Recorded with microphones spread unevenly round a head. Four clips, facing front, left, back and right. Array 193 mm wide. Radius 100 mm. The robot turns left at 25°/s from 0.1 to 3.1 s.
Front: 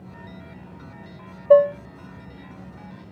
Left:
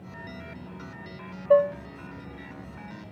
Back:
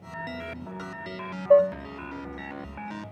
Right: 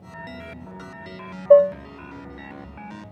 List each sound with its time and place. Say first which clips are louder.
1.5 s dishes clattering: right 7 dB, front 4 dB; 55° right, 0.5 m; by 1.8 s 60° right, 0.5 m